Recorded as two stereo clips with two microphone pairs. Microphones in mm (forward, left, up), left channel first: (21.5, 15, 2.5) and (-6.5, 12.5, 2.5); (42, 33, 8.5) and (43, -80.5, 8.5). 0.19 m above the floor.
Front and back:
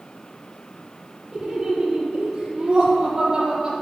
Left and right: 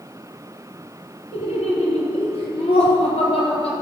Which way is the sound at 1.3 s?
120° left.